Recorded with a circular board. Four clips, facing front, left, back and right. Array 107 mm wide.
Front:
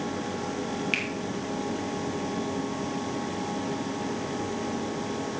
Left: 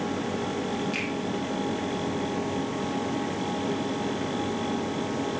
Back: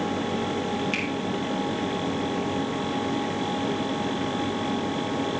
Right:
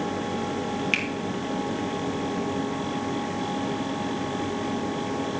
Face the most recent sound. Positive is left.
turn(degrees=-75)